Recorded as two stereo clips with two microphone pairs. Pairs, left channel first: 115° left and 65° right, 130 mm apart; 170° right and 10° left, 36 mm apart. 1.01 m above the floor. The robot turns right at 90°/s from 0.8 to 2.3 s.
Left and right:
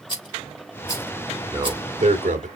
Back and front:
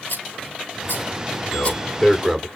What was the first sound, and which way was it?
A rattle, 170° left.